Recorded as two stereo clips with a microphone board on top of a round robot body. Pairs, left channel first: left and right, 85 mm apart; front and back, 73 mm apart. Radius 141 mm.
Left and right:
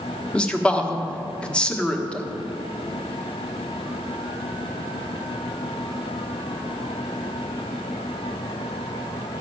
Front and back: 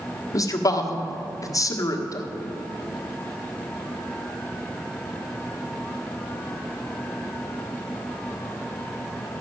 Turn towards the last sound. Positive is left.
turn(degrees=15)